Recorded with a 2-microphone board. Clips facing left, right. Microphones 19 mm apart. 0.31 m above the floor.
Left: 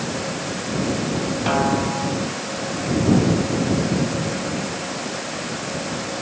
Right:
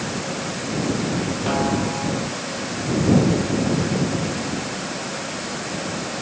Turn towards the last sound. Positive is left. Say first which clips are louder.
# left 2 dB
turn(degrees=15)  # may be behind; listen again after turning